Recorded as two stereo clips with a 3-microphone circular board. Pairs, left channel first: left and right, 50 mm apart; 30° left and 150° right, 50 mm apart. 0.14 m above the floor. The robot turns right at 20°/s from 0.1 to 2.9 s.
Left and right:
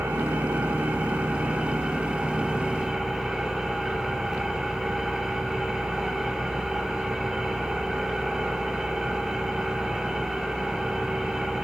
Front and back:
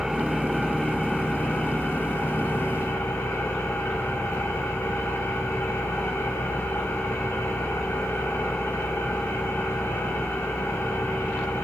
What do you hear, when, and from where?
0.0 s an engine running: 60° right, 4.5 m; by 11.6 s 5° right, 4.5 m